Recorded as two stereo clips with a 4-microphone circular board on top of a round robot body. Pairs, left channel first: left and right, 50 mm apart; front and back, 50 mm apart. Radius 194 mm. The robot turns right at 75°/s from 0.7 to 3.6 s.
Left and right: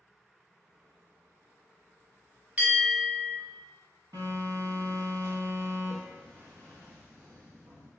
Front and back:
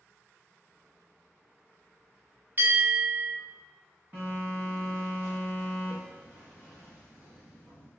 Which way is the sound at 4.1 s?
120° right.